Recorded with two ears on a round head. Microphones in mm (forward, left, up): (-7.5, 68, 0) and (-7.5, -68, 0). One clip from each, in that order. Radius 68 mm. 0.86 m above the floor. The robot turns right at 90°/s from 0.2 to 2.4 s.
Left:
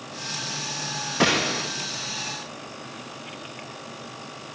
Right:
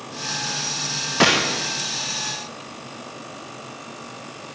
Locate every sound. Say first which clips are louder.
1.2 s a gunshot: right 4 dB; 20° right, 0.6 m; by 1.7 s 20° left, 0.6 m